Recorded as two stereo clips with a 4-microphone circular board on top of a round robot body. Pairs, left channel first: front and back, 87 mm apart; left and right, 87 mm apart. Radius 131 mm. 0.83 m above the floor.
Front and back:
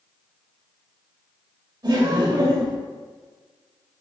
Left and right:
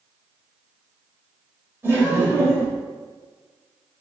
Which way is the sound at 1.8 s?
145° right.